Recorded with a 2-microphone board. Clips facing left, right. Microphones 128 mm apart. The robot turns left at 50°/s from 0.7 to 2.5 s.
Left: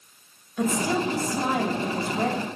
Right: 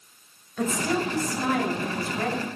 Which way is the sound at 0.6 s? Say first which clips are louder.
Left 1 dB; 10° left (ahead or behind).